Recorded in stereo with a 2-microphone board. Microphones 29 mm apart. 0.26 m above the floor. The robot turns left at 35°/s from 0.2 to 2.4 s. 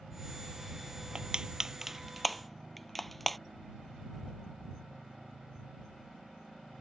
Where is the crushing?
35° right (ahead or behind); by 3.4 s 5° left (ahead or behind).